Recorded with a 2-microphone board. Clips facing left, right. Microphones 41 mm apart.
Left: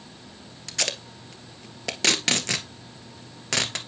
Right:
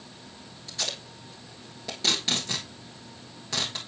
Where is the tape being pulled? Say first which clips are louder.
Left 4 dB; 80° left, 1.4 m.